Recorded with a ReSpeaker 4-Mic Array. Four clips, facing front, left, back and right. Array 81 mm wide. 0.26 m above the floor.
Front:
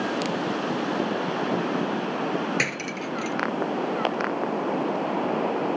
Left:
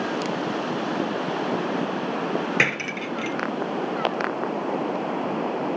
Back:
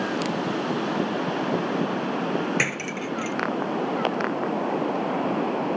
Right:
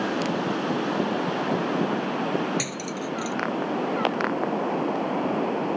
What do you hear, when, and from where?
2.6 s cutlery clinking: 95° left